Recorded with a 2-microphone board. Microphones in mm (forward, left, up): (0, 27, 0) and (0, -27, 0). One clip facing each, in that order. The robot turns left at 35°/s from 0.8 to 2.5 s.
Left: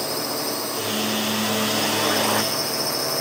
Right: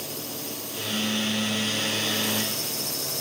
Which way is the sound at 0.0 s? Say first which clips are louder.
Left 9 dB; 115° left.